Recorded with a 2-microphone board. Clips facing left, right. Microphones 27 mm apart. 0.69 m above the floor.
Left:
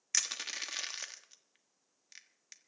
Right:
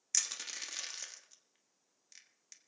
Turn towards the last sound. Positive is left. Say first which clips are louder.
# left 3 dB
turn(degrees=25)  # may be behind; listen again after turning